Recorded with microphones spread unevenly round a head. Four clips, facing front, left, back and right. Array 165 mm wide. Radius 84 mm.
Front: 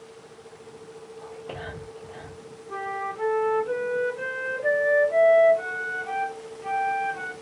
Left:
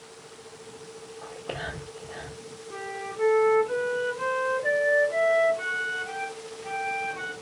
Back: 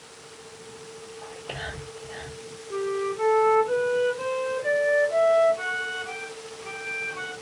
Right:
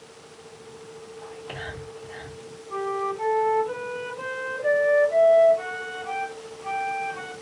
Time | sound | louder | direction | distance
1.2 | whispering | left 2 dB, even | 80° left | 1.5 m
2.7 | a flute | right 9 dB, back 4 dB | 10° left | 2.5 m